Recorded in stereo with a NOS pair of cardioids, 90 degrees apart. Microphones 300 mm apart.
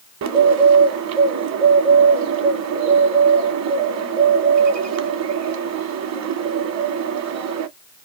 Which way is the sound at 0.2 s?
60° right.